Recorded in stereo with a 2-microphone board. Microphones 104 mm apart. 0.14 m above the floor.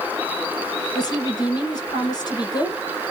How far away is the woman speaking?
About 1.5 m.